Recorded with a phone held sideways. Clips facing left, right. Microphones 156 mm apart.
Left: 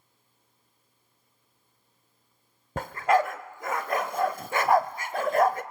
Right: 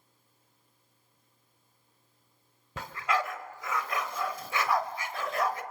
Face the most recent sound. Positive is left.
turn(degrees=45)  # may be behind; listen again after turning